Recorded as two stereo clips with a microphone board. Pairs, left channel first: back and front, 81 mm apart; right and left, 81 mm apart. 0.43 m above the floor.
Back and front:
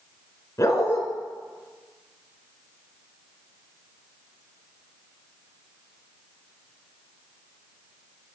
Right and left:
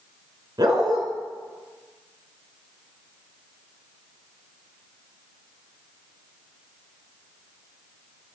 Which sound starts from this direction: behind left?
A dog barking, at 0.6 s.